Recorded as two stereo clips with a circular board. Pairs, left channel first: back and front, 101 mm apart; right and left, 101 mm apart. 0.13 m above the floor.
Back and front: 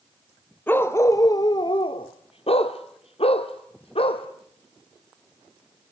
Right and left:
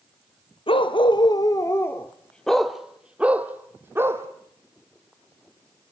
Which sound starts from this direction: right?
A dog barking, at 0.7 s.